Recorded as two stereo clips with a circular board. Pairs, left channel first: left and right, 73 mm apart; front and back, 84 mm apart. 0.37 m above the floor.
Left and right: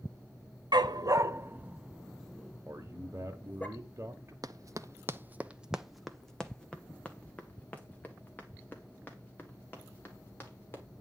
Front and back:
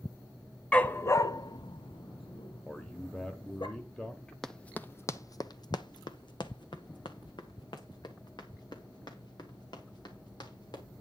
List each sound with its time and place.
0.7 s a dog barking: 75° right, 0.6 m; by 3.7 s 25° left, 1.7 m
2.7 s a man speaking: 75° right, 1.1 m
4.4 s running footsteps: 85° right, 0.6 m; by 10.8 s 30° left, 3 m